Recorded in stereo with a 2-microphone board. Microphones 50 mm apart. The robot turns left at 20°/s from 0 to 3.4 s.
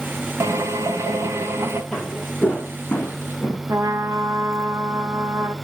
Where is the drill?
75° right (ahead or behind), 1.9 m; by 1.8 s 50° right (ahead or behind), 1.9 m.